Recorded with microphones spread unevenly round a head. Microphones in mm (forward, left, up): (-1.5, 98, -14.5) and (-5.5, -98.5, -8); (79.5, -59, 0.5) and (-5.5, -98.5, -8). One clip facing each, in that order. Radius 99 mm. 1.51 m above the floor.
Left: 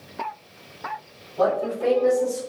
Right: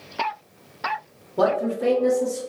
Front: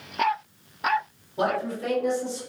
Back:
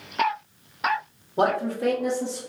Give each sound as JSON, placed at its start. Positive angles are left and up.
{"t": 1.4, "sound": "a man speaking", "azimuth_deg": -110, "distance_m": 1.7}